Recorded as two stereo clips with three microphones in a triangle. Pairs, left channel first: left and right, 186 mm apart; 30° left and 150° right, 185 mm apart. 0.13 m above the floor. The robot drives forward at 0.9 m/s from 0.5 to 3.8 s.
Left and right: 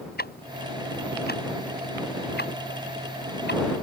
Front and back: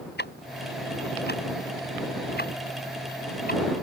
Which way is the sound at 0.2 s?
60° left.